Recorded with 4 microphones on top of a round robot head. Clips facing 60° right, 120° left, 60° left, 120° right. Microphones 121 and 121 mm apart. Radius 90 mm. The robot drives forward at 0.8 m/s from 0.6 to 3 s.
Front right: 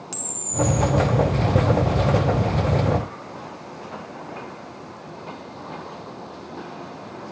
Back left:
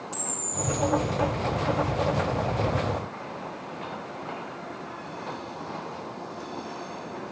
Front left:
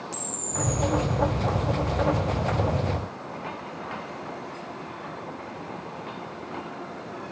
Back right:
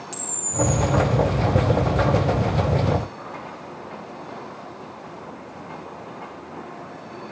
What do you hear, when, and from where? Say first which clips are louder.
0.1 s a camera shutter: front right 10 dB, back right 8 dB; 50° right, 0.8 m; by 0.8 s 65° right, 0.7 m